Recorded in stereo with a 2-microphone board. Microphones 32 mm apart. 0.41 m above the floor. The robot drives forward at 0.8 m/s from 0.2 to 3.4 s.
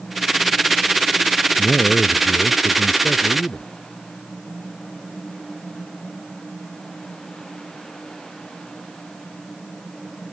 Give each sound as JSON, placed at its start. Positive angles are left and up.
{"t": 1.6, "sound": "a man speaking", "side_deg": 80}